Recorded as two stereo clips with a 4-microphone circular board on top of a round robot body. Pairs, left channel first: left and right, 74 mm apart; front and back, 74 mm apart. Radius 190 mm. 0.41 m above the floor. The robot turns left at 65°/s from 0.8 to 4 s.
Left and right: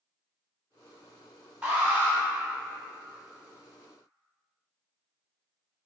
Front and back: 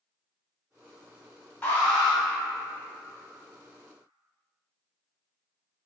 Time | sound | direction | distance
1.6 | an alarm | 35° right | 1.7 m